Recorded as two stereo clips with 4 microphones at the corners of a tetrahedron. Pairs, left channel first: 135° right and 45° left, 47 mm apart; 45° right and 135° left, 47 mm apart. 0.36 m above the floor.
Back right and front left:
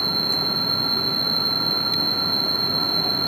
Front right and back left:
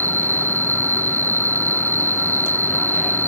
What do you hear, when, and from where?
0.0 s an insect: 145° left